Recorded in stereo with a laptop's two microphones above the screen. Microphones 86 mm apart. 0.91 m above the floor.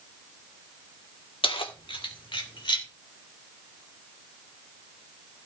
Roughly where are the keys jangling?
Left.